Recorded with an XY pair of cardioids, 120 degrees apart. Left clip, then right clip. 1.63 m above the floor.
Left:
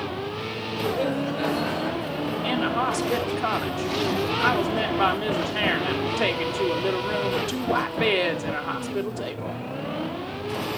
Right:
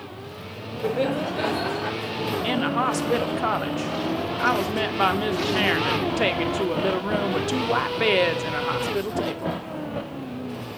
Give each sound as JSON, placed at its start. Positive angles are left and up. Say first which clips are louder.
{"t": 0.8, "sound": "laughter", "louder": "right 2 dB", "azimuth_deg": -30, "distance_m": 4.5}
{"t": 2.4, "sound": "a woman speaking", "louder": "even", "azimuth_deg": -10, "distance_m": 1.1}